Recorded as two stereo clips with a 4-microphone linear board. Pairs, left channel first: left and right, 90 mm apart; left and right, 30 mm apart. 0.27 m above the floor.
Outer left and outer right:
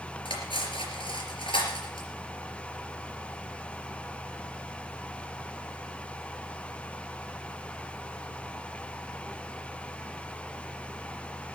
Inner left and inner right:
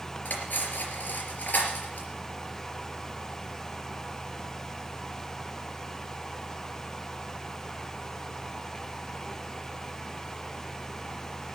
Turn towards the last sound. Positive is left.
turn(degrees=75)  # may be behind; listen again after turning